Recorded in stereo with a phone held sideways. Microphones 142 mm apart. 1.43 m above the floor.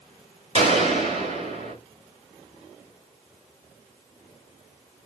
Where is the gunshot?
45° right (ahead or behind), 2.5 m.